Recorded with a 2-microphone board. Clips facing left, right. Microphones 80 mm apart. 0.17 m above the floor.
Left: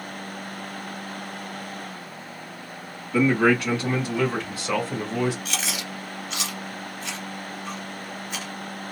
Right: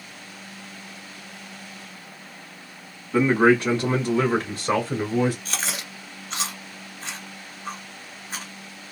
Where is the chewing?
40° right (ahead or behind), 1.7 m.